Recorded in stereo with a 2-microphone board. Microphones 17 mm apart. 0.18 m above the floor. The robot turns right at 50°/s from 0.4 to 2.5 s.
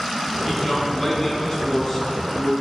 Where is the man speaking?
10° right, 2.0 m; by 2.5 s 90° left, 2.0 m.